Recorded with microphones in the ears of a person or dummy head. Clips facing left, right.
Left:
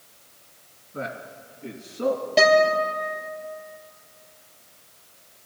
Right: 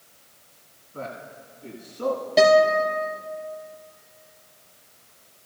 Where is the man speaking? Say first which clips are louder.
Left 2 dB; 25° left (ahead or behind), 2 m.